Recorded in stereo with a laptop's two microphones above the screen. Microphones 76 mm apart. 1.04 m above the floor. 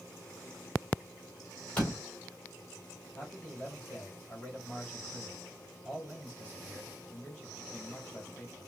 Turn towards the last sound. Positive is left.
turn(degrees=20)  # may be behind; listen again after turning